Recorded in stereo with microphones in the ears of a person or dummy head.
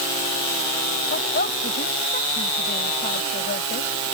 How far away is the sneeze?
I don't hear a sneeze.